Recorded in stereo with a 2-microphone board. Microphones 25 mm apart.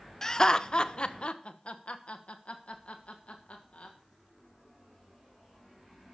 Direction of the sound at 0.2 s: 20° left (ahead or behind).